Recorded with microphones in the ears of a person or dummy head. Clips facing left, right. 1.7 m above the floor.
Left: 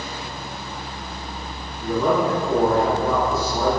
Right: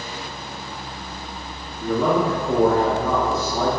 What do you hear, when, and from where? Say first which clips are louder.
1.8 s a man speaking: even; 65° right (ahead or behind), 0.9 m